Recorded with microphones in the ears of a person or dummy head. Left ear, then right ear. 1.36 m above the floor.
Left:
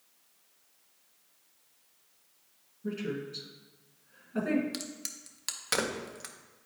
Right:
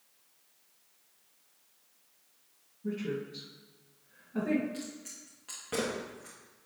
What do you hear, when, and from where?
2.8 s a woman speaking: 20° left (ahead or behind), 2.0 m
4.7 s a crack: 60° left (ahead or behind), 0.7 m